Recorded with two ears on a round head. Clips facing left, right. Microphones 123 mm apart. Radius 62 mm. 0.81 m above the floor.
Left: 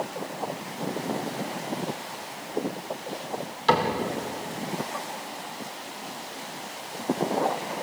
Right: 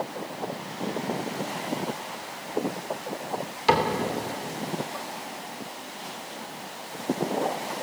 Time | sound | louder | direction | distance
3.7 | a cupboard door | even | 10° right (ahead or behind) | 3 m